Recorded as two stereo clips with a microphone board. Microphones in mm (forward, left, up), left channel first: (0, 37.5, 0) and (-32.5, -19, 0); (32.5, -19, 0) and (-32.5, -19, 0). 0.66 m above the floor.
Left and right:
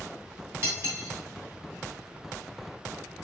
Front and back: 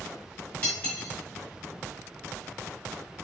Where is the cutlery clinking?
70° right, 1.7 m.